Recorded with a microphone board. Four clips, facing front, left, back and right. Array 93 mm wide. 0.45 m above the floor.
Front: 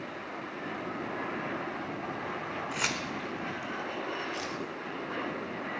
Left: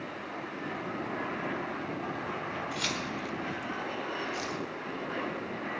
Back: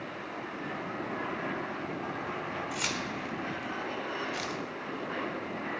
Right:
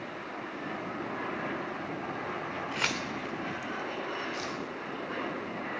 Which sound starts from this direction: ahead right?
Keys jangling, at 2.7 s.